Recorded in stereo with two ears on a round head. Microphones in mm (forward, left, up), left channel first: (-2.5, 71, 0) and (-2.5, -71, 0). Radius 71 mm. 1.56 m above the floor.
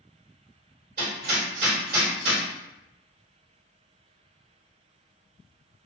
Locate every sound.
1.0 s hammering: 55° right (ahead or behind), 1.4 m